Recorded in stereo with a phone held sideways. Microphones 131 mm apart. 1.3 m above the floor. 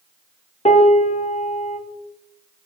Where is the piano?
55° left (ahead or behind), 1.0 m.